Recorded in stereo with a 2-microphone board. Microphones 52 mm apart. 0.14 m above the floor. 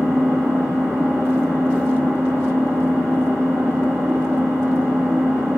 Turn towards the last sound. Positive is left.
turn(degrees=-65)  # may be behind; listen again after turning